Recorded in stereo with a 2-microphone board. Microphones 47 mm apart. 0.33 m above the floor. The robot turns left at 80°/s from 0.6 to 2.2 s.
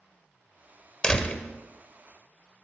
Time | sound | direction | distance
1.0 | a door slam | 20° left (ahead or behind) | 0.9 m